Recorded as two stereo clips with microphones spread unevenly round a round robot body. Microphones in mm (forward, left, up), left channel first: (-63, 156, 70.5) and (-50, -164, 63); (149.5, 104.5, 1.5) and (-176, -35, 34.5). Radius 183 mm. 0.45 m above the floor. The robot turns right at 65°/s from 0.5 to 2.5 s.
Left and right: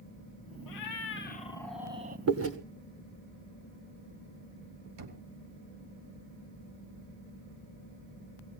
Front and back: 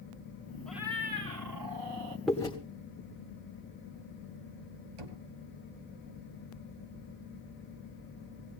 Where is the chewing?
65° right, 2.0 m; by 2.6 s 50° right, 2.0 m.